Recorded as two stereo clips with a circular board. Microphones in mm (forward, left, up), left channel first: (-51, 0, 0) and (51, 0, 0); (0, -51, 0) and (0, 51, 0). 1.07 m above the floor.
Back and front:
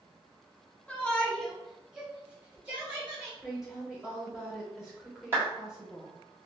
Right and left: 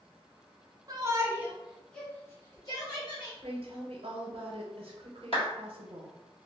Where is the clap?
70° right, 1.4 m.